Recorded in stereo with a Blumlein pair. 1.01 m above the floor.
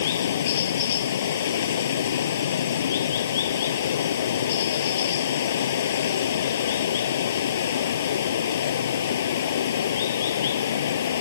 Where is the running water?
60° left.